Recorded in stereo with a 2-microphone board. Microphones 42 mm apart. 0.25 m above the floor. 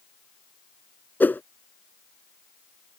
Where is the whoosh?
45° left (ahead or behind).